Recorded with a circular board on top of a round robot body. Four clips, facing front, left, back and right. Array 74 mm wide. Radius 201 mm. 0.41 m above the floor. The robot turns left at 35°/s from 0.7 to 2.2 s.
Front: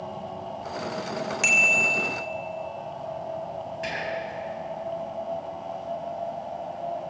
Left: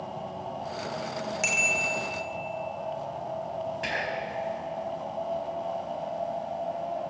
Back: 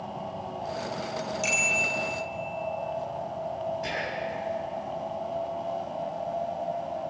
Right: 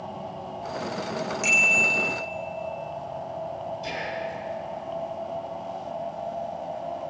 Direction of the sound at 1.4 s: 15° left.